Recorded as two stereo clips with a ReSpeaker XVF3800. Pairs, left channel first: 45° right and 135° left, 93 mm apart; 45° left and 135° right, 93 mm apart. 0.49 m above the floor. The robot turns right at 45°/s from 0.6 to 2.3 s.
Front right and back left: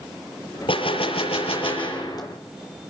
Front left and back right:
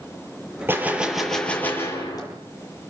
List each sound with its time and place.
0.7 s a gunshot: 70° right, 7 m; by 2.3 s 5° left, 7 m